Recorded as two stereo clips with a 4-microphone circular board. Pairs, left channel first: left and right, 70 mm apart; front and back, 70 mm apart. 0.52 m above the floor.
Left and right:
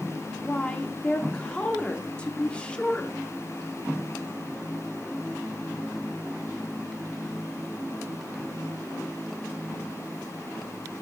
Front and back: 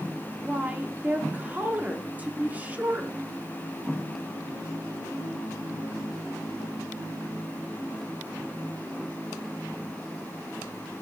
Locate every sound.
0.4 s a woman speaking: 145° left, 1.1 m